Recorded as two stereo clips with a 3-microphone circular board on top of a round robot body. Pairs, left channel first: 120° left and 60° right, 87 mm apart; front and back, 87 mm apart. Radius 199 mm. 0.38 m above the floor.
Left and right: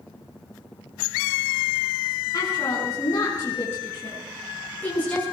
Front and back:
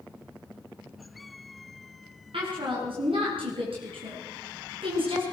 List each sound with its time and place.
2.3 s a woman speaking: 175° left, 7.5 m; by 5.2 s 165° right, 7.5 m